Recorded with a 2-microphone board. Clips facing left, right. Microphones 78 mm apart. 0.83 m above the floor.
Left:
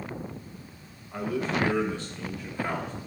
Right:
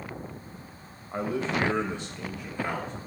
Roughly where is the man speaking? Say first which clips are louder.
Even; right.